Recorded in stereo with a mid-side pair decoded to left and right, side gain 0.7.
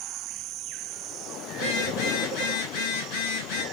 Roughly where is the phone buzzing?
Left.